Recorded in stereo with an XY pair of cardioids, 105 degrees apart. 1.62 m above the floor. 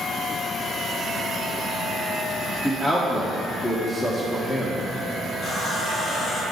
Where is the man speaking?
20° left, 1.5 m.